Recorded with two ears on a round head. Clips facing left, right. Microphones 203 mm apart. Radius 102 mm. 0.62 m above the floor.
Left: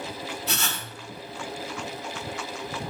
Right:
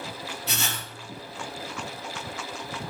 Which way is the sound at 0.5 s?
80° right.